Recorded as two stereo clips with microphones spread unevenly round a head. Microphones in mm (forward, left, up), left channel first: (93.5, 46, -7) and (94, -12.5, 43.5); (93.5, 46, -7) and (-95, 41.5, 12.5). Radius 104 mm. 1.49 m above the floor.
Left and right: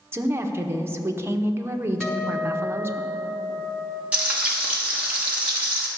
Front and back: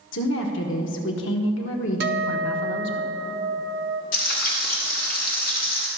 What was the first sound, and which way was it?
A woman speaking, 30° right.